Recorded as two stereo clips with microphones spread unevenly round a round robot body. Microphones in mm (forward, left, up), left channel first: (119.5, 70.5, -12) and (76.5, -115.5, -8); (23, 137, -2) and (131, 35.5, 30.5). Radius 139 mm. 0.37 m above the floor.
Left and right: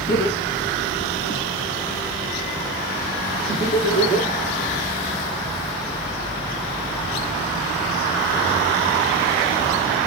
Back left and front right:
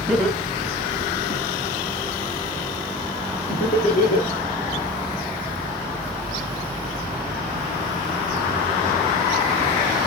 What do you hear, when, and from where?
0.1 s laughter: 55° left, 3 m; by 4.3 s 110° left, 7 m